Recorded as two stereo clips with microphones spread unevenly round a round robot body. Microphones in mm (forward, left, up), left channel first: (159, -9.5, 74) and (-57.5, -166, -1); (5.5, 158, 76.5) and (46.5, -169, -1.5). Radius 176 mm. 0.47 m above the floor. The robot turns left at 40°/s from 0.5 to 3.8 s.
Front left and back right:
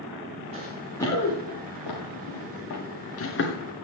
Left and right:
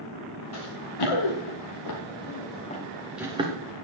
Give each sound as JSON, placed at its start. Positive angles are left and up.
{"t": 0.5, "sound": "running footsteps", "azimuth_deg": 140, "distance_m": 3.0}